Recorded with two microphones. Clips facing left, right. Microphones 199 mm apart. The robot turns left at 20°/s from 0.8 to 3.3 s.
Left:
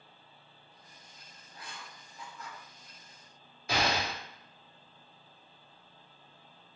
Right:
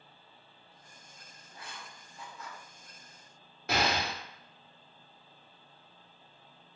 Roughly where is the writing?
Right.